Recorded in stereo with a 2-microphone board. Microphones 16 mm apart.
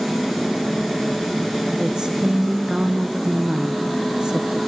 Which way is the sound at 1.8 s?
45° right (ahead or behind).